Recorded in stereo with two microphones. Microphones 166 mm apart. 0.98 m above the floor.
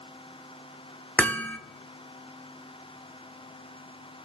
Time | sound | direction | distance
1.2 | hammering | 10° left (ahead or behind) | 0.6 m